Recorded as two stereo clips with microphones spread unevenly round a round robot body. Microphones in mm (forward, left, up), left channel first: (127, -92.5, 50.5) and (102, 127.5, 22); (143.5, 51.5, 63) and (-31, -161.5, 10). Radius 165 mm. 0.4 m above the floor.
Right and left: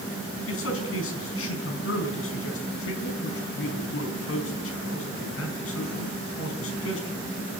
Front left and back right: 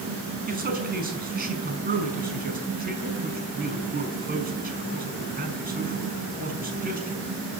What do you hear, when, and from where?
0.5 s a man speaking: 80° right, 5 m